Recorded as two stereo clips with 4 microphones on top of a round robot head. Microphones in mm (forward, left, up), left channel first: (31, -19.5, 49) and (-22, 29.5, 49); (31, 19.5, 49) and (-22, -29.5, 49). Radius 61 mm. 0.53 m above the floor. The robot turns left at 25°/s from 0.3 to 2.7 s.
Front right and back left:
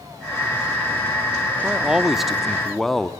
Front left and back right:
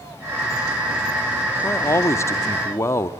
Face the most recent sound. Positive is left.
turn(degrees=40)